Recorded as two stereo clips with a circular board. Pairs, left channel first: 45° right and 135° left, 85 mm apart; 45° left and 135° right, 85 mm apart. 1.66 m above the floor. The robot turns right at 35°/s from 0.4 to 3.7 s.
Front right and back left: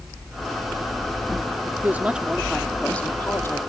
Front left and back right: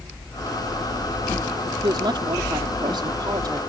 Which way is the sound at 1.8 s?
160° right.